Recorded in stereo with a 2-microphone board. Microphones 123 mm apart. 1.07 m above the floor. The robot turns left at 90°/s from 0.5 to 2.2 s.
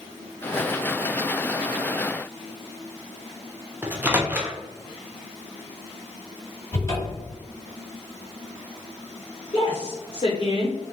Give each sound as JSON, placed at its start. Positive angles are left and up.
{"t": 3.8, "sound": "a microwave", "side_deg": -15, "distance_m": 0.5}
{"t": 6.7, "sound": "a cupboard door", "side_deg": 25, "distance_m": 1.2}
{"t": 9.5, "sound": "a woman speaking", "side_deg": 40, "distance_m": 0.9}